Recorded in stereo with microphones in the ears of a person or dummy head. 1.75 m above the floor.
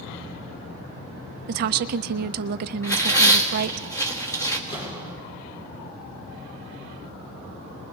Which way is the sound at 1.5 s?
50° right (ahead or behind).